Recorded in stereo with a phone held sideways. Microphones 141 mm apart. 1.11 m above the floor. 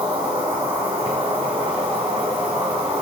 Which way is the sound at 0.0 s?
40° right (ahead or behind).